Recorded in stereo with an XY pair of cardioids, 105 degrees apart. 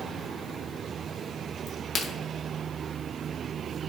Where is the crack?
55° left, 2.5 m.